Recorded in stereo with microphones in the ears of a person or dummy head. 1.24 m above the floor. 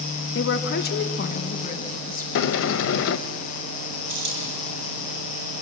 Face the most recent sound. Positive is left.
turn(degrees=-70)  # may be behind; listen again after turning